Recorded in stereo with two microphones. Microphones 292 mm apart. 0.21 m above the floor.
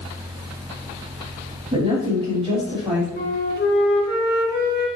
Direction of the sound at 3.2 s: 35° left (ahead or behind).